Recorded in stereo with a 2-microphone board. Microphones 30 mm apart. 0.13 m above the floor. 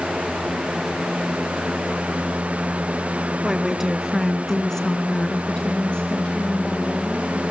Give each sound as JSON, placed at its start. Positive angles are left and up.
{"t": 3.4, "sound": "a woman speaking", "side_deg": -15, "distance_m": 1.8}